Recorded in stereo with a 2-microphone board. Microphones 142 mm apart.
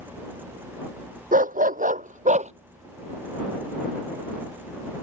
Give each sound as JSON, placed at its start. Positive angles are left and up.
{"t": 1.3, "sound": "a dog barking", "side_deg": -85}